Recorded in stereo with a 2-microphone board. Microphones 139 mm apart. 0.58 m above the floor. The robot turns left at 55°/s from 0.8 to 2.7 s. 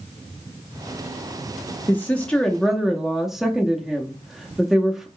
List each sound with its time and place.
1.9 s a woman speaking: 15° left (ahead or behind), 0.6 m; by 5.1 s centre (ahead or behind), 0.6 m